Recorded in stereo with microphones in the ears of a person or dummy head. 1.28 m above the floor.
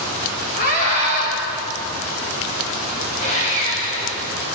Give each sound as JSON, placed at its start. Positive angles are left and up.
{"t": 0.6, "sound": "a scream", "side_deg": 50, "distance_m": 4.0}
{"t": 3.2, "sound": "sawing", "side_deg": 35, "distance_m": 5.0}